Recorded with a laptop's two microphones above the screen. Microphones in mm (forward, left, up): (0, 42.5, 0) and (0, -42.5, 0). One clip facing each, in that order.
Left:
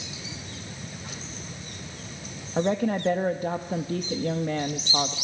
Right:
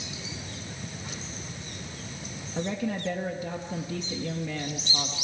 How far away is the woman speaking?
About 1.3 m.